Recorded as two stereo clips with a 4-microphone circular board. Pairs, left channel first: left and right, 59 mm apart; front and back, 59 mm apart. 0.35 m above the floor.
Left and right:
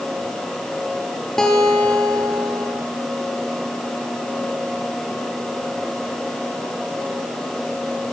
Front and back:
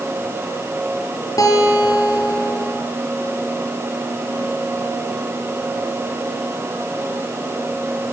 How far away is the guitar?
About 5 m.